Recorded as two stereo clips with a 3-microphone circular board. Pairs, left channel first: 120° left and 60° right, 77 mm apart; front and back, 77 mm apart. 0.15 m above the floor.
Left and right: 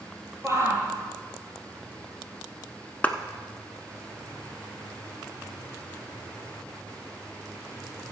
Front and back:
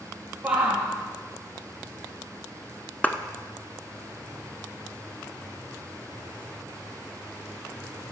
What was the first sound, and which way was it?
A shout, 110° right.